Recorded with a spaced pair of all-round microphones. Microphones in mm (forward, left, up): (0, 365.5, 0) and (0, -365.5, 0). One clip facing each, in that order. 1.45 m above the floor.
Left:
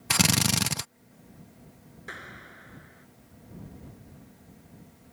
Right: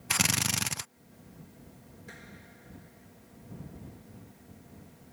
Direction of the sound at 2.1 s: 85° left.